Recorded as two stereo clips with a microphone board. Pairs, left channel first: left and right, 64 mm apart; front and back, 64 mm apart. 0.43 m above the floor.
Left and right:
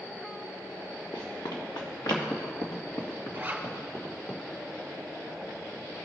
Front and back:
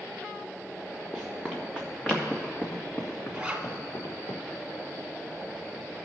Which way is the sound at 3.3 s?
125° right.